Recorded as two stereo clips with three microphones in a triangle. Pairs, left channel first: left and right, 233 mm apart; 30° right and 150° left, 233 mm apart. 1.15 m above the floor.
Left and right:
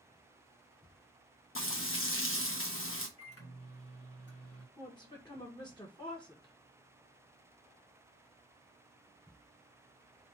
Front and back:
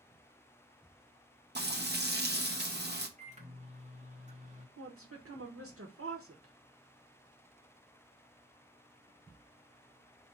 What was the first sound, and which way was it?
Frying, 110° left.